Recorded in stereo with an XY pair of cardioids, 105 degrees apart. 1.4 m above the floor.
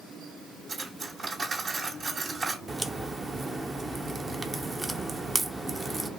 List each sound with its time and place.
0.7 s cutlery clinking: 55° right, 2.5 m
2.7 s a crack: 25° right, 0.6 m